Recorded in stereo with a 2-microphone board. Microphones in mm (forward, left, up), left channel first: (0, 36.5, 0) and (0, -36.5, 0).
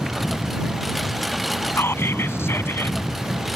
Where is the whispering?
35° left (ahead or behind).